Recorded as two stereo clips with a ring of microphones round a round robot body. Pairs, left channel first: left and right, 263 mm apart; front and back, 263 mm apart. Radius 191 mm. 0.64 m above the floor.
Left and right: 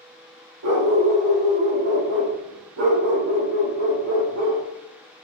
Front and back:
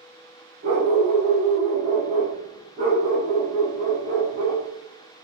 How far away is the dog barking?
About 7.5 m.